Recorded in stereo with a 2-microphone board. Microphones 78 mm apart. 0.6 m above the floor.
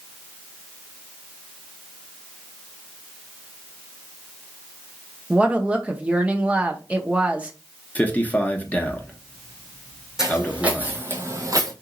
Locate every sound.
5.3 s a woman speaking: 15° right (ahead or behind), 0.6 m
8.0 s a man speaking: 20° left (ahead or behind), 0.7 m
10.2 s footsteps: 10° right (ahead or behind), 1.6 m; by 11.7 s 55° right (ahead or behind), 1.1 m